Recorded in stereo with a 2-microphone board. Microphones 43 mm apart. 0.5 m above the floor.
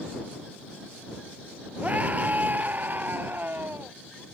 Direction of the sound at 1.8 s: 40° right (ahead or behind).